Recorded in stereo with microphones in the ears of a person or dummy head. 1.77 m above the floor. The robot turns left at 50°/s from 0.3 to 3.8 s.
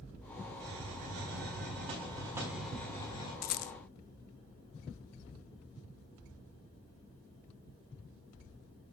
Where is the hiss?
80° right, 6 m; by 3.3 s 140° left, 6 m.